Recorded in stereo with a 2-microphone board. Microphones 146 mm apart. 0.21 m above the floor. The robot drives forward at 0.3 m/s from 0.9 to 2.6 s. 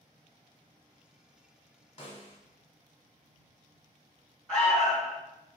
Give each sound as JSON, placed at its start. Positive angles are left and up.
{"t": 2.0, "sound": "a snare drum", "side_deg": 40, "distance_m": 1.4}
{"t": 4.5, "sound": "an alarm", "side_deg": 5, "distance_m": 1.3}